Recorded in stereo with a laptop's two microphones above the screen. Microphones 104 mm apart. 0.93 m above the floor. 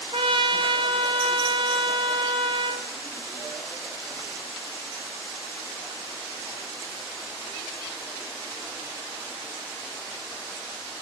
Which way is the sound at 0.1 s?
60° right (ahead or behind).